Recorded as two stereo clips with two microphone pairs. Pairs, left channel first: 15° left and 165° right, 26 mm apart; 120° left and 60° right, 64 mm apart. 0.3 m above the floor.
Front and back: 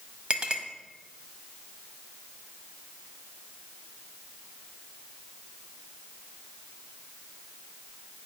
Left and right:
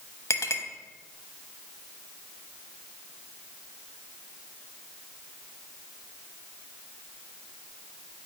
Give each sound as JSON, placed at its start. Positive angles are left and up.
{"t": 0.3, "sound": "a clink", "azimuth_deg": 145, "distance_m": 0.8}